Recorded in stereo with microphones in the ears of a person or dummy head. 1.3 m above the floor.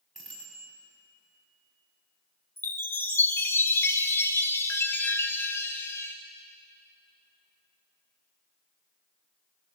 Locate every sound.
0.1 s a bicycle bell: centre (ahead or behind), 7 m
2.6 s a chime: 15° left (ahead or behind), 1.3 m